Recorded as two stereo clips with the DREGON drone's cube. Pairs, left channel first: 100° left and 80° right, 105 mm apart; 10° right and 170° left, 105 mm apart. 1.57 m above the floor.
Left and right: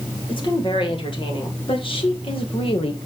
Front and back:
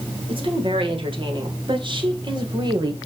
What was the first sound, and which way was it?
A woman speaking, 135° left.